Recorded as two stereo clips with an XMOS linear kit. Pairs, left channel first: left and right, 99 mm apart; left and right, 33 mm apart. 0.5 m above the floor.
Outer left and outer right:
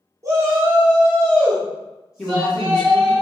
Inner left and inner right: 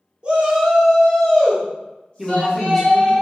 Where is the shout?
30° right (ahead or behind), 1.3 m; by 3.2 s 55° left (ahead or behind), 1.9 m.